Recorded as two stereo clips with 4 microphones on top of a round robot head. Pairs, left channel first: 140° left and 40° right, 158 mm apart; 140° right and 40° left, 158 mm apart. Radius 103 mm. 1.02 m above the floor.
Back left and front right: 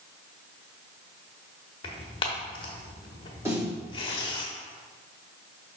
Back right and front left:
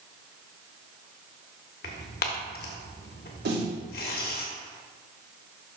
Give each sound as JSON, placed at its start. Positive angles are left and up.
{"t": 1.8, "sound": "tearing paper", "azimuth_deg": -165, "distance_m": 1.0}
{"t": 3.5, "sound": "a snare drum", "azimuth_deg": 30, "distance_m": 3.0}